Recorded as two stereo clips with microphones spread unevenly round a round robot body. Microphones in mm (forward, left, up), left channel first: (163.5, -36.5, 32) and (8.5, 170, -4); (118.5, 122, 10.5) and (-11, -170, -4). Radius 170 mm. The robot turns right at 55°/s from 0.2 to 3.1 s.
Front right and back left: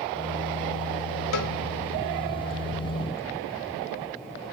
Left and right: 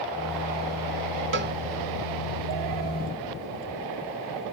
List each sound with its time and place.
1.3 s a cowbell: 60° right, 0.7 m; by 1.5 s 50° right, 0.7 m